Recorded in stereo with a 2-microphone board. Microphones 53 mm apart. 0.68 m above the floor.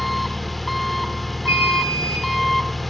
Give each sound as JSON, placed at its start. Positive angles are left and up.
{"t": 0.0, "sound": "an engine running", "side_deg": 0, "distance_m": 1.1}
{"t": 1.5, "sound": "an alarm", "side_deg": -70, "distance_m": 7.5}